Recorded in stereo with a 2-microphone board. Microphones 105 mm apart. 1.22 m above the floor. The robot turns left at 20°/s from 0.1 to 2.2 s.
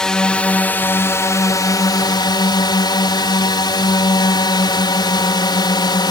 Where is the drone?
175° left; by 6.1 s 130° left.